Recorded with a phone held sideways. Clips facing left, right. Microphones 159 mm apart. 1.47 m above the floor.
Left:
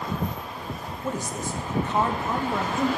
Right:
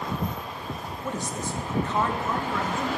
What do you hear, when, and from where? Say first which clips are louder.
1.0 s a man speaking: left 2 dB; 5° left (ahead or behind), 1.0 m; by 2.9 s 20° left (ahead or behind), 2.0 m